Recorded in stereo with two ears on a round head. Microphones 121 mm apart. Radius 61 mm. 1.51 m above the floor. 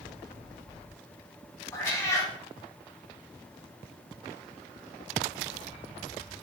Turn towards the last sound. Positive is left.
turn(degrees=20)  # may be behind; listen again after turning